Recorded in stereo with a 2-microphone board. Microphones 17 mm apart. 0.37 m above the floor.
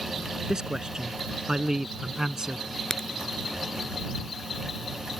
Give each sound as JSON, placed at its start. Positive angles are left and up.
{"t": 0.5, "sound": "a man speaking", "side_deg": -40}
{"t": 2.9, "sound": "a crack", "side_deg": 30}